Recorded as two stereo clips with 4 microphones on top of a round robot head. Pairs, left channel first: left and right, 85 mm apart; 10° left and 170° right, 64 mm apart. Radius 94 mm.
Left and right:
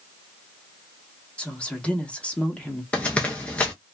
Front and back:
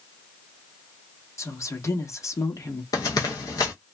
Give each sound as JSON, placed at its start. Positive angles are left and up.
{"t": 1.4, "sound": "a woman speaking", "azimuth_deg": 15, "distance_m": 1.3}
{"t": 2.9, "sound": "running footsteps", "azimuth_deg": 15, "distance_m": 0.5}